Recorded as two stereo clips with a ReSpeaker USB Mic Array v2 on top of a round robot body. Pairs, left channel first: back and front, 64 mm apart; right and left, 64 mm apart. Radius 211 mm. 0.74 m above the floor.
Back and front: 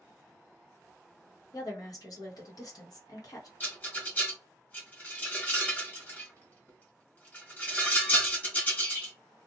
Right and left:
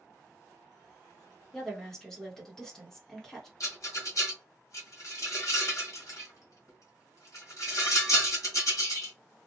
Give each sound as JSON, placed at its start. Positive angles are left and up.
{"t": 1.5, "sound": "a woman speaking", "azimuth_deg": -175, "distance_m": 1.4}
{"t": 3.6, "sound": "a rattle", "azimuth_deg": -120, "distance_m": 1.3}